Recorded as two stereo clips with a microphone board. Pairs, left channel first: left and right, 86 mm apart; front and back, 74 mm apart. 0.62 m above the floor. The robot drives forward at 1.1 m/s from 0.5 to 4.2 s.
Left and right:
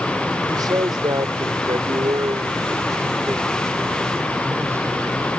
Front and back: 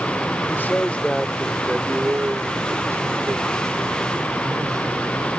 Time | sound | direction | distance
0.5 | a man speaking | 60° right | ?